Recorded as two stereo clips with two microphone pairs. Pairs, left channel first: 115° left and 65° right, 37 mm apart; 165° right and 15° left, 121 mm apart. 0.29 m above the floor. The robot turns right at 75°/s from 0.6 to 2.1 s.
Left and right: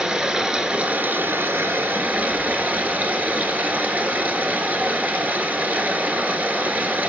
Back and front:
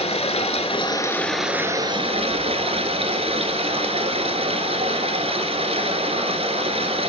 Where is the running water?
135° right, 1.2 m; by 7.1 s 25° right, 1.2 m.